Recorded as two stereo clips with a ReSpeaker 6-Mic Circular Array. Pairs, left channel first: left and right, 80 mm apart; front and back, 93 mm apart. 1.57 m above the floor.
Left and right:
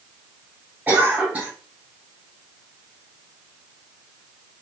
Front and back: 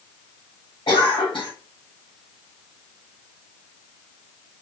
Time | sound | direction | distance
0.9 | a cough | 20° right | 2 m